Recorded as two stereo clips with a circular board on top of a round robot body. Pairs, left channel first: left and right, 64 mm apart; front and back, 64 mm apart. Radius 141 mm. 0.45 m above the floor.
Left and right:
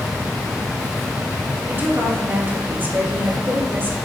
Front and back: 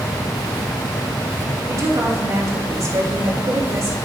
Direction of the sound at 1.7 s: 145° right.